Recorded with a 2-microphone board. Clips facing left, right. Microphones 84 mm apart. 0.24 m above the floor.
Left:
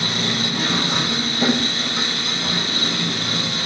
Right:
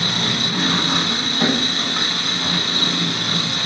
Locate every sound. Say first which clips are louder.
0.0 s an engine running: even; 65° right (ahead or behind), 0.9 m